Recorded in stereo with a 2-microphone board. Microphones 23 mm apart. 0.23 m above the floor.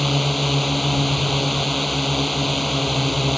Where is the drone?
Centre (ahead or behind).